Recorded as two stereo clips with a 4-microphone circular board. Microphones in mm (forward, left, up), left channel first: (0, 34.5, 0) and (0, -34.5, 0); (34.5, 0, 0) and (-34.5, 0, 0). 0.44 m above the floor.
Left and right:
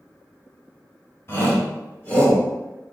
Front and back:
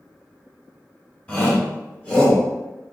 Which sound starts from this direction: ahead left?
A shout, at 1.3 s.